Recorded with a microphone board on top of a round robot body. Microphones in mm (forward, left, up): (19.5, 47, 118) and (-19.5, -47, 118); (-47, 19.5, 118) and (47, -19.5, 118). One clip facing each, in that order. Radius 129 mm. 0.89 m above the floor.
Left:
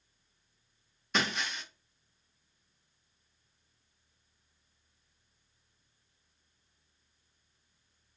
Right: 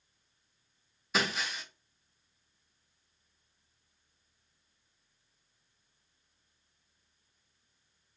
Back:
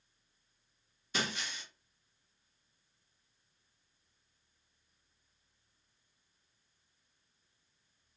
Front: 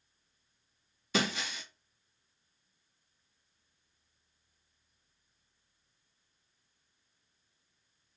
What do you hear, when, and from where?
1.1 s breaking glass: 25° right, 0.5 m